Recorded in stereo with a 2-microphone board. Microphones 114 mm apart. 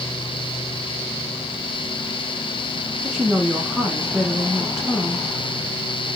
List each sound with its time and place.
3.0 s a woman speaking: 5° right (ahead or behind), 1.3 m